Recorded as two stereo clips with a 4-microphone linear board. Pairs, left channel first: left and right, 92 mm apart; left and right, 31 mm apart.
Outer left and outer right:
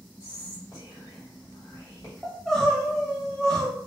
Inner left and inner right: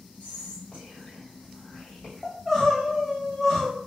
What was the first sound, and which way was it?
Whispering, 40° left (ahead or behind).